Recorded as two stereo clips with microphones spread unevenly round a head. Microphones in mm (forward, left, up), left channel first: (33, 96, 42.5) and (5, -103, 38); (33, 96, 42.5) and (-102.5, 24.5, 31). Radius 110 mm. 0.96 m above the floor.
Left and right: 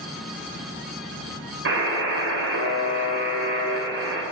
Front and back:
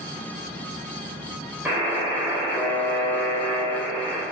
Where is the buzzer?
70° right, 3.5 m.